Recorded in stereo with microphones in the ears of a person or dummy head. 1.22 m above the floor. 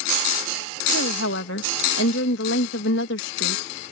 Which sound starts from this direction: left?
A woman speaking, at 0.9 s.